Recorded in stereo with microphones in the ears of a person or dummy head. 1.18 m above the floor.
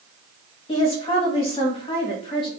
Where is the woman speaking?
30° left (ahead or behind), 1.2 m.